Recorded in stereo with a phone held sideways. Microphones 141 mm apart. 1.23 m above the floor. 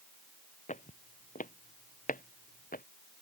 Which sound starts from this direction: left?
Footsteps, at 0.7 s.